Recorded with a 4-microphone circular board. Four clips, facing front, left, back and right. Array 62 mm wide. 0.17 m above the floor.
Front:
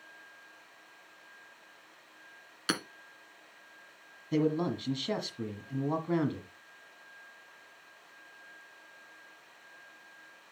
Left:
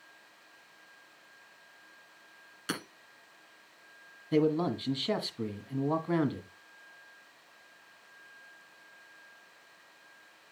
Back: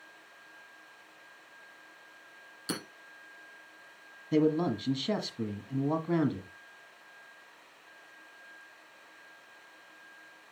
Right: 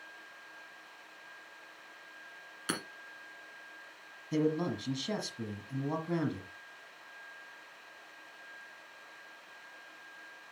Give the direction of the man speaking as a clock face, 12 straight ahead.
9 o'clock.